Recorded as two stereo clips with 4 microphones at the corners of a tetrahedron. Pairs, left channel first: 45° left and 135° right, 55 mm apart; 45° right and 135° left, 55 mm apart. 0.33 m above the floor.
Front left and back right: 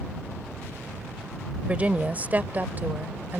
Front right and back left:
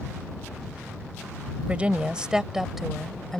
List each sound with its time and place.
1.7 s a woman speaking: straight behind; by 3.4 s 120° right